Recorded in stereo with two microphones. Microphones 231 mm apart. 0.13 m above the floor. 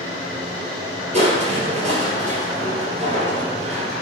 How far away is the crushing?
About 3 m.